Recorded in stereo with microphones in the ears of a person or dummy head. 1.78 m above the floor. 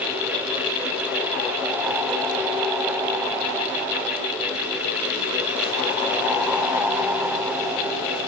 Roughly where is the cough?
No cough in this recording.